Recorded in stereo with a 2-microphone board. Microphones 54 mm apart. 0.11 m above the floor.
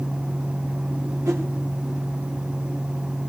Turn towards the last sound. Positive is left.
turn(degrees=-70)  # may be behind; listen again after turning